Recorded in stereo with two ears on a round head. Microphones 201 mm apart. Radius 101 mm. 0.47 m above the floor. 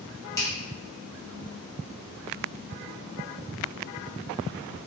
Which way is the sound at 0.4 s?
15° left (ahead or behind).